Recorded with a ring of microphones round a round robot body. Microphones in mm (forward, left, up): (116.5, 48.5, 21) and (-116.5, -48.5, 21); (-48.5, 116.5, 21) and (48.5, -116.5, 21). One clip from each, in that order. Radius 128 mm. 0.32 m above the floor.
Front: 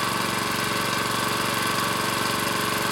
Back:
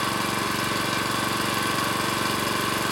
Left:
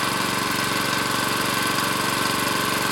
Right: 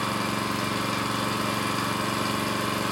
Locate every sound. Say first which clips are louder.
0.0 s an engine running: even, left 5 dB; 100° left, 0.8 m